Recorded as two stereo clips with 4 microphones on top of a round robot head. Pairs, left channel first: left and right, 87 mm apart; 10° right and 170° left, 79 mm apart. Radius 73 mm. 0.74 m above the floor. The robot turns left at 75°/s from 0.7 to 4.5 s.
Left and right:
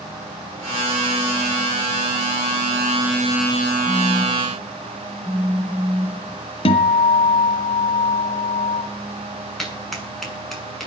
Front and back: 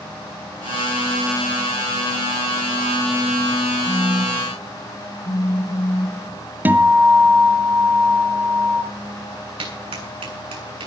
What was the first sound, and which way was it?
A phone buzzing, 40° left.